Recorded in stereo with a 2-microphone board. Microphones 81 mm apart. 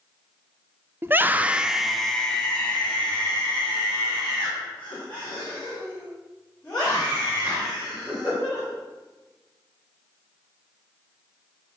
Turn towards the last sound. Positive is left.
turn(degrees=25)  # may be behind; listen again after turning